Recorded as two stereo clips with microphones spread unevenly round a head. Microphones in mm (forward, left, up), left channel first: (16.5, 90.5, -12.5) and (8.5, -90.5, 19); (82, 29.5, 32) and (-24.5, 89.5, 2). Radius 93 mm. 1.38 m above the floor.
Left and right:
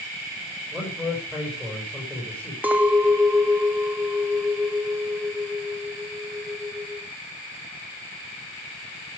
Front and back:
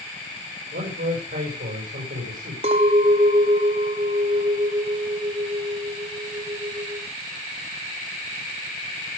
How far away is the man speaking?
About 6 m.